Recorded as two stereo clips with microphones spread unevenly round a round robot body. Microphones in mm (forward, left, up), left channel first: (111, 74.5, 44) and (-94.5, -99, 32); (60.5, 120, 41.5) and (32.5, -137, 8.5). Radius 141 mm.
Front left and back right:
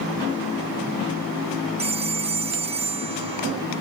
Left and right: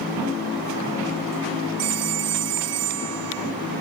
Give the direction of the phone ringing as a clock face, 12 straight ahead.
2 o'clock.